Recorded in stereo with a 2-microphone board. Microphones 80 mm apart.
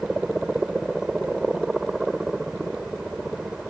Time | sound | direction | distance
0.0 | a helicopter | 5° right (ahead or behind) | ?